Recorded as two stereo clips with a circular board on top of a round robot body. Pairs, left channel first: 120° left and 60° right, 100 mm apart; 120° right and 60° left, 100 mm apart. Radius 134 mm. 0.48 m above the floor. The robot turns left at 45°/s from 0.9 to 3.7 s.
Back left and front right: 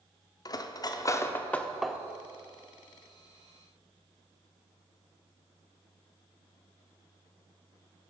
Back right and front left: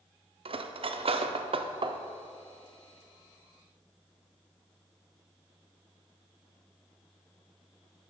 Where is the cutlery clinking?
75° left, 0.6 m; by 2.0 s 25° left, 0.6 m.